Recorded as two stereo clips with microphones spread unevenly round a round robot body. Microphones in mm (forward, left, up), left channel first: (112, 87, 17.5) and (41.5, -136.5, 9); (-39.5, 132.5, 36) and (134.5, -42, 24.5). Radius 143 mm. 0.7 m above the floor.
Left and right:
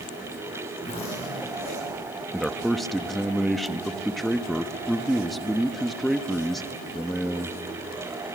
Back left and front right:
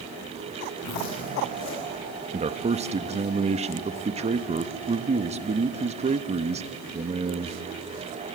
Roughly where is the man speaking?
Ahead.